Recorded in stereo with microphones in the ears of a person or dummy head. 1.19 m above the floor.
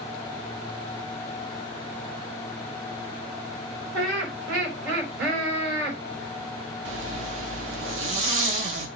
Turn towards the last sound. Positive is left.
turn(degrees=-35)  # may be behind; listen again after turning